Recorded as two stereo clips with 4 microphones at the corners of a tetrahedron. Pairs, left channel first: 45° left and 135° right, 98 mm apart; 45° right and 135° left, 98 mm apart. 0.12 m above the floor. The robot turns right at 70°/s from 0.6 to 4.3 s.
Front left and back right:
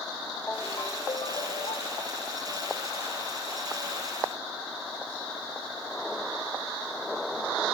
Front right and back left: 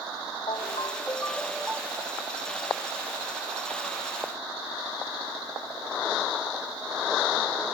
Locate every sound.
0.5 s a ringtone: 25° right; by 2.2 s 85° left